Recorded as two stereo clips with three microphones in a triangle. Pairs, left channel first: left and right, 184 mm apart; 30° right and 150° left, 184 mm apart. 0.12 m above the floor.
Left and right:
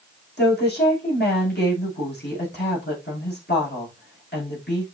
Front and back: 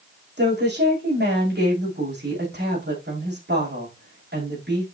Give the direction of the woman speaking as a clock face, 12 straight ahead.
8 o'clock.